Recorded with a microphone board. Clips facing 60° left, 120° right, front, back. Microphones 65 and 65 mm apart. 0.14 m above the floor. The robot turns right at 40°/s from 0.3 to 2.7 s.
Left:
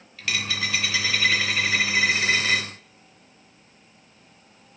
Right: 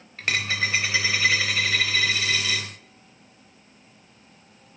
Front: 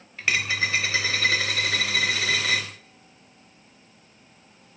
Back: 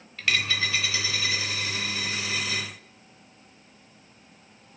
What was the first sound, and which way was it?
A dropped coin, 70° right.